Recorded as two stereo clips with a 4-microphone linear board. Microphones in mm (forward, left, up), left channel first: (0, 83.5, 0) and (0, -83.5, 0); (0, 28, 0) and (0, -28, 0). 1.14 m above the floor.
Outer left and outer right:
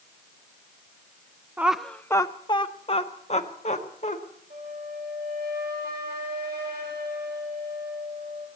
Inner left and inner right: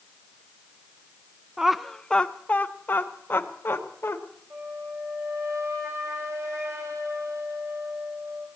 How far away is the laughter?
About 0.6 m.